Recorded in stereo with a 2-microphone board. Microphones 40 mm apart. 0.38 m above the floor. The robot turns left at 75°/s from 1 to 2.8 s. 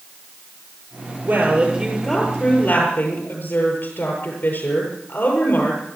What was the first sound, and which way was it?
A woman speaking, 130° right.